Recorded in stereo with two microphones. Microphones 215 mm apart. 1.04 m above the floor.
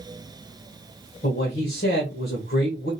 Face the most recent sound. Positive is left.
turn(degrees=50)  # may be behind; listen again after turning